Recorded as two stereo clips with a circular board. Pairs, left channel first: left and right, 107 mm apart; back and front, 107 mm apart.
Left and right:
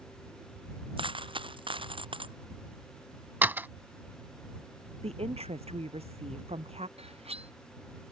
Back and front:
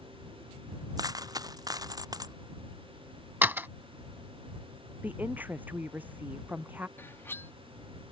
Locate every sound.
1.0 s a dropped coin: 55° right
3.4 s a door slam: 45° right
5.0 s a woman speaking: 75° right
7.0 s cutlery clinking: 110° right